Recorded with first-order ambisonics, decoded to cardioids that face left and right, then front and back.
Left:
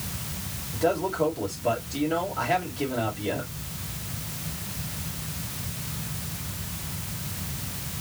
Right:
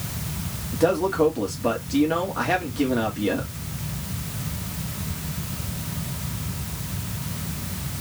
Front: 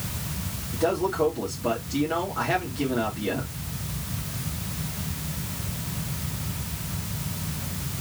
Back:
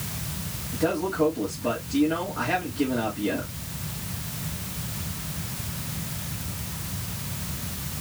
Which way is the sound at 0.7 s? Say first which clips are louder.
Right 4 dB, front 1 dB; 85° right.